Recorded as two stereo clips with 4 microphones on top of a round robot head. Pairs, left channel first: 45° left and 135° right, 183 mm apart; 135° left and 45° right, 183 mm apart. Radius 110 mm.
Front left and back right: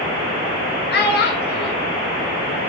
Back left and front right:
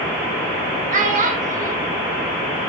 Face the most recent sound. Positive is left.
turn(degrees=10)